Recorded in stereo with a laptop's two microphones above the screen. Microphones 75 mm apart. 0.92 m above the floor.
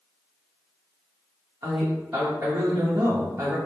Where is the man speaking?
30° right (ahead or behind), 1.0 m.